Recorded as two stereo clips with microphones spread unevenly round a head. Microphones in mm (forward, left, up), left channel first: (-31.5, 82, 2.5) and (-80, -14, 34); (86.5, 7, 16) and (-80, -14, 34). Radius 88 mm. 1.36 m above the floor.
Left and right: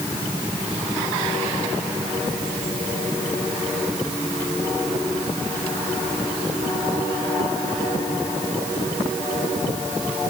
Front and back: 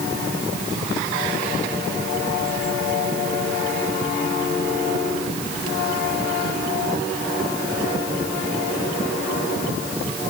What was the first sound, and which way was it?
Only background noise.